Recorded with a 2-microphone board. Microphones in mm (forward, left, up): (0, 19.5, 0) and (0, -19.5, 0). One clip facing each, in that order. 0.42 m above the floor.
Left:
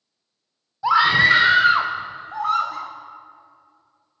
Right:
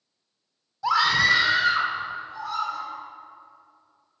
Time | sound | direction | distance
0.8 | a scream | 15° left (ahead or behind) | 0.8 m